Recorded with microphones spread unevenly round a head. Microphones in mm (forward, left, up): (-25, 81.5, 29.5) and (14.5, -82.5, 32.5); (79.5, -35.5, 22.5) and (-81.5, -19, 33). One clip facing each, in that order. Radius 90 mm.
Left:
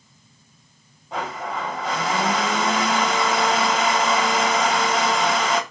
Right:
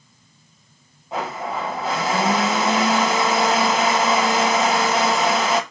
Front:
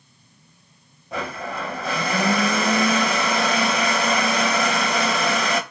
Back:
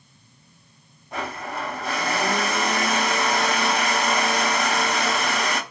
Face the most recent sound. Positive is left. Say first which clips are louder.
# right 2 dB, front 2 dB
turn(degrees=10)